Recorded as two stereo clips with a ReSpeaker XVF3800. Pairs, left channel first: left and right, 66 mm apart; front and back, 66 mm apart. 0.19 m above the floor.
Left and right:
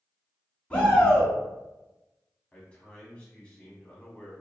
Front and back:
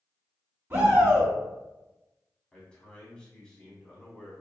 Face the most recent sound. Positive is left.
turn(degrees=50)